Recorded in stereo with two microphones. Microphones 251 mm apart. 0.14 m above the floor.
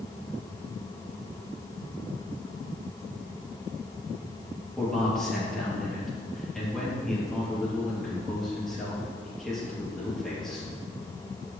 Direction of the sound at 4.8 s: Centre (ahead or behind).